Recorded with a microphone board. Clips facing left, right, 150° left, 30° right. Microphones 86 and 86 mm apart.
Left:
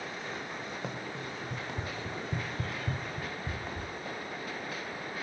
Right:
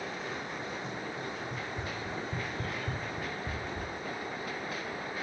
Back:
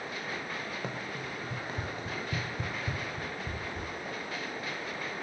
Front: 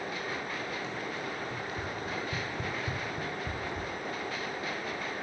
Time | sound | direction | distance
0.8 | running footsteps | 110° left | 3 m